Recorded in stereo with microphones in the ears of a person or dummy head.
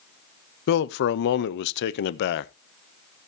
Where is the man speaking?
60° left (ahead or behind), 0.7 m.